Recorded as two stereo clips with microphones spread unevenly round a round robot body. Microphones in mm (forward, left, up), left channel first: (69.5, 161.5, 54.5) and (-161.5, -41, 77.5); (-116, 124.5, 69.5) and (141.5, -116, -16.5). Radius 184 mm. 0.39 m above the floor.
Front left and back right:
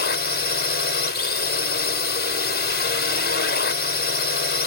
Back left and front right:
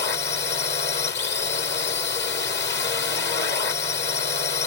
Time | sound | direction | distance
0.0 | a drone | 75° left | ?